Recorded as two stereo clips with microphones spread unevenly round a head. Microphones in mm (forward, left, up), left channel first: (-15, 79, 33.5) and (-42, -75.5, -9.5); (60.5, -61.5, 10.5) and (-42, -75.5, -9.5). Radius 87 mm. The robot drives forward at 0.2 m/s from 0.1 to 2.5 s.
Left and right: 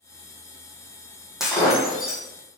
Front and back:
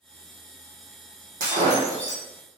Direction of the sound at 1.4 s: 165° left.